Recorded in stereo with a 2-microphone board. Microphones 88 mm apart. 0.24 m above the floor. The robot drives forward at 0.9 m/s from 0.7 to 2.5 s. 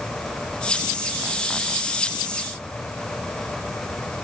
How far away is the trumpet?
I don't hear a trumpet.